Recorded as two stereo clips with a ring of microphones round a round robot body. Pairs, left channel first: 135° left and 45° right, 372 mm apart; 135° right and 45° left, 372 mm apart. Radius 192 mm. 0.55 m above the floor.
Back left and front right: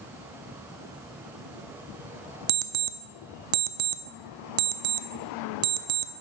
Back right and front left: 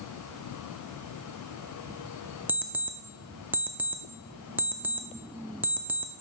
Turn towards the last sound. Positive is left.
turn(degrees=-40)